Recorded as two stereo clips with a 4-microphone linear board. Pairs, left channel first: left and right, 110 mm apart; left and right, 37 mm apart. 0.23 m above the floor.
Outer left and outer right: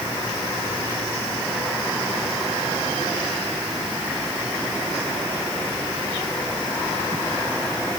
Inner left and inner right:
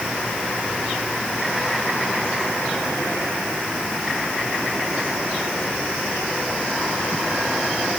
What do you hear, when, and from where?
Only background noise.